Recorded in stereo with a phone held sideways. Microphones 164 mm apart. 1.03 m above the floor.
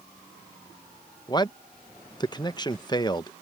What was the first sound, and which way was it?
A man speaking, 25° left (ahead or behind).